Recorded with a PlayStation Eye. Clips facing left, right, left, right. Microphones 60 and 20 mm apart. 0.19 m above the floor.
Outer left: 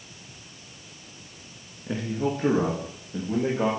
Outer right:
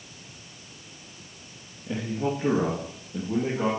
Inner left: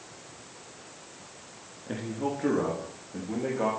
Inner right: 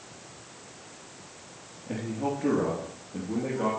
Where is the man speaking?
50° left (ahead or behind), 2 m; by 3.7 s 60° left (ahead or behind), 3.5 m.